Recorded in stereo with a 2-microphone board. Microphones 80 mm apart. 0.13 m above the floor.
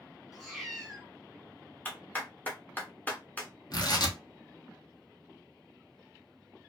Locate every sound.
0.3 s a cat meowing: centre (ahead or behind), 0.8 m
1.9 s a clap: 20° left (ahead or behind), 0.9 m
3.7 s tearing paper: 60° left (ahead or behind), 0.8 m